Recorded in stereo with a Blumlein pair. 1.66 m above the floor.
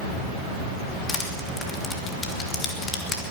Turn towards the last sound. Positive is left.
turn(degrees=20)